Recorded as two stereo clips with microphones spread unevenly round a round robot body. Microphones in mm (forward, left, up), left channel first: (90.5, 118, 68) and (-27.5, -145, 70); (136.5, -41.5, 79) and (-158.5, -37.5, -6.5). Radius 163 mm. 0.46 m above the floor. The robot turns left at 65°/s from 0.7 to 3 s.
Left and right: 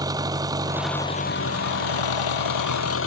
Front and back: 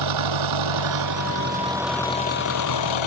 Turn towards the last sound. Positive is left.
turn(degrees=15)